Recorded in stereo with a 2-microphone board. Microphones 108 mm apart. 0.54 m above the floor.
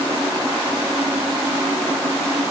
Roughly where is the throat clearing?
I don't hear throat clearing.